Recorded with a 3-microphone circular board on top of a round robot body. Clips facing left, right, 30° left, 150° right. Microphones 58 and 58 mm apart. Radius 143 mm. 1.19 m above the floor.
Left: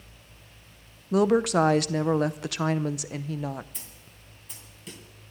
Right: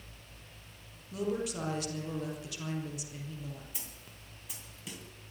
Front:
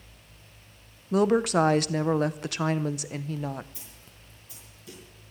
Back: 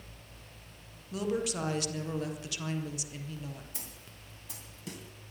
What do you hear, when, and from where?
1.1 s a woman speaking: 65° left, 0.8 m
3.7 s a snare drum: 175° right, 2.5 m